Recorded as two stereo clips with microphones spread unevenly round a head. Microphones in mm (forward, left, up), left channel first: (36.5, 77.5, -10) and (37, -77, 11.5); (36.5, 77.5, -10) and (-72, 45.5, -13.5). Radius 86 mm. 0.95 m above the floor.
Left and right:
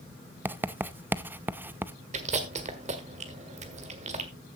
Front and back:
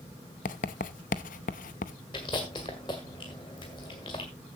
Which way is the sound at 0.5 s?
10° right.